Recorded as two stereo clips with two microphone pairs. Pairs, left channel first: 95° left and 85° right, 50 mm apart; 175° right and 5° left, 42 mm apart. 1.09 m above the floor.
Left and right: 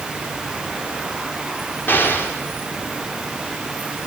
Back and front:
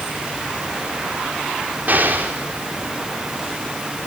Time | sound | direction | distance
1.9 | an explosion | 50° left | 4 m